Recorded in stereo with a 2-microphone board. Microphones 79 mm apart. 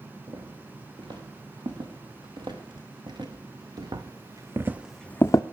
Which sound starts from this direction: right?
Footsteps, at 0.3 s.